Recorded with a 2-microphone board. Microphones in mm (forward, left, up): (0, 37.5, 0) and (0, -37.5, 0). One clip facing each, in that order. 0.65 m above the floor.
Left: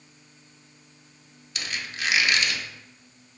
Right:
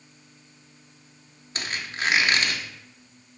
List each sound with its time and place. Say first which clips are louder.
1.6 s a squeak: right 2 dB; 40° right (ahead or behind), 0.5 m